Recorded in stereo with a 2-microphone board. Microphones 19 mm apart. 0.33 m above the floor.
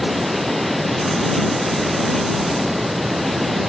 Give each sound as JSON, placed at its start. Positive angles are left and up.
{"t": 0.0, "sound": "running water", "side_deg": -55}